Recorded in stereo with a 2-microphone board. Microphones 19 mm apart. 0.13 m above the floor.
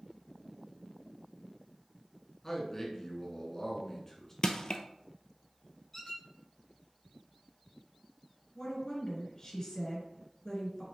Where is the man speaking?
25° left (ahead or behind), 1.1 m.